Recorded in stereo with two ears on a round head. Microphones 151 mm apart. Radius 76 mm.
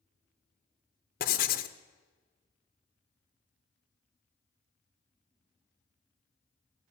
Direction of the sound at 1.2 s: 55° left (ahead or behind).